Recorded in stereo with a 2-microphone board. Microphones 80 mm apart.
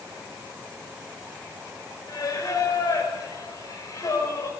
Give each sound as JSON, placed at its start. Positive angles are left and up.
{"t": 2.1, "sound": "singing", "side_deg": 45, "distance_m": 6.0}